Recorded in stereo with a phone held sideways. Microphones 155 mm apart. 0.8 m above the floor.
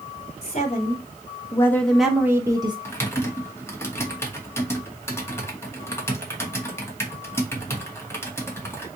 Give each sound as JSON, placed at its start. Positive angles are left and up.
{"t": 0.4, "sound": "a woman speaking", "side_deg": 45, "distance_m": 1.1}
{"t": 2.9, "sound": "typing on a keyboard", "side_deg": 15, "distance_m": 1.0}